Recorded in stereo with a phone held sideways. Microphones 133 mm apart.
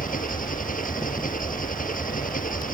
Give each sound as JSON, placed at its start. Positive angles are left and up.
{"t": 0.0, "sound": "an engine running", "side_deg": 90}